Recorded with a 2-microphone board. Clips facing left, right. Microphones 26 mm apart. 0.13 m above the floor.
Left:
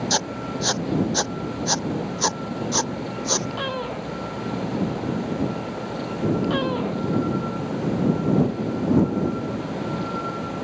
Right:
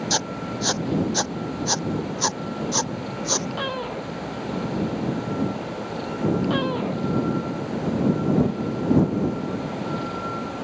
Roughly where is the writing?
Centre.